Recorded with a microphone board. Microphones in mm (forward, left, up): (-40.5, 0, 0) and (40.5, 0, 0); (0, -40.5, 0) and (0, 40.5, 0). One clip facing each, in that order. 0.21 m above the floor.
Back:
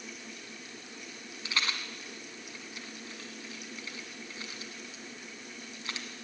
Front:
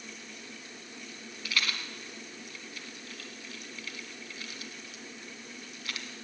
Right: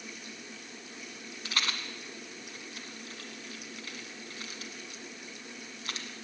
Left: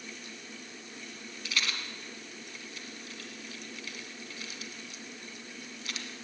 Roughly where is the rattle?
Behind right.